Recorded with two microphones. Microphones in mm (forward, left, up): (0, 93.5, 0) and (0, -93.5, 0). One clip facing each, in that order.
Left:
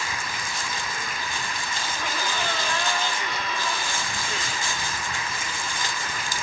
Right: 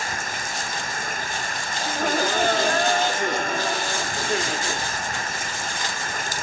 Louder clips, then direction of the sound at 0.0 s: Right 2 dB; 50° right (ahead or behind).